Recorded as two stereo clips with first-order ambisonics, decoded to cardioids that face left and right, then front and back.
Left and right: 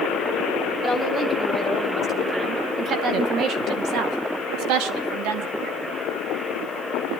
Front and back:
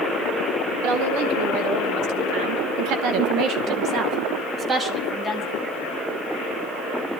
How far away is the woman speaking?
About 4 m.